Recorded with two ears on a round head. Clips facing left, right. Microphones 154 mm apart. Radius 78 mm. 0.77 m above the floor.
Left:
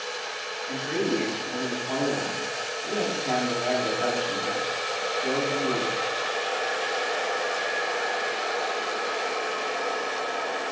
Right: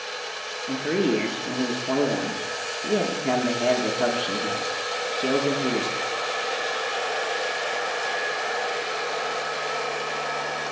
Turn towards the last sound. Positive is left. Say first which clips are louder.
# right 4 dB
turn(degrees=-55)  # may be behind; listen again after turning